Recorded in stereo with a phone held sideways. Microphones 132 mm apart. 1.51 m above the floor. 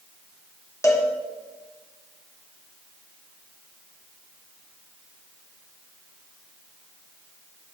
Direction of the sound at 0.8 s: 25° left (ahead or behind).